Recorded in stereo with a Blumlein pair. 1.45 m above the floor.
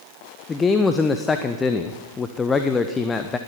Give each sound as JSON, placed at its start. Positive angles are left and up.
{"t": 0.5, "sound": "a man speaking", "azimuth_deg": 15, "distance_m": 0.7}